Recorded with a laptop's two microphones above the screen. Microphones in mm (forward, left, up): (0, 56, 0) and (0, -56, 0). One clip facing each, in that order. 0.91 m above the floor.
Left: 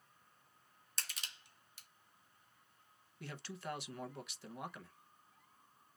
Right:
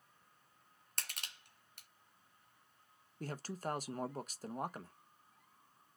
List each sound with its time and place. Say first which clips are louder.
1.0 s crushing: right 1 dB; 55° right (ahead or behind), 1.2 m
3.2 s a man speaking: right 5 dB; 40° right (ahead or behind), 0.6 m